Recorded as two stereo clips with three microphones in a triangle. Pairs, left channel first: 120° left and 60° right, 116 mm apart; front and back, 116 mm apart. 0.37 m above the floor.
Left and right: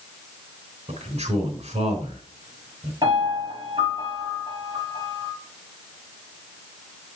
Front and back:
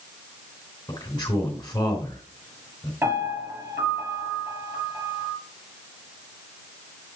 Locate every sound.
0.9 s a man speaking: 55° right, 3 m
3.0 s a piano: 110° right, 5 m